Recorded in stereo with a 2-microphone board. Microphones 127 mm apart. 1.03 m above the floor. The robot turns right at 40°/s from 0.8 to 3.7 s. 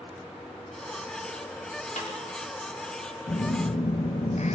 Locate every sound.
2.0 s a snare drum: 80° left, 3 m
3.3 s a phone buzzing: 55° left (ahead or behind), 0.7 m; by 4.6 s 65° left (ahead or behind), 0.7 m